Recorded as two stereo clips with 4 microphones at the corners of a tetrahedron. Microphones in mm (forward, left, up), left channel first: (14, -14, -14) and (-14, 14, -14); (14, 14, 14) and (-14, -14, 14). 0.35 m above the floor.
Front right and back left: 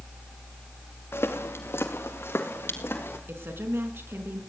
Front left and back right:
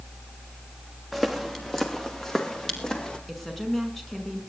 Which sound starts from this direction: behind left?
A woman speaking, at 3.3 s.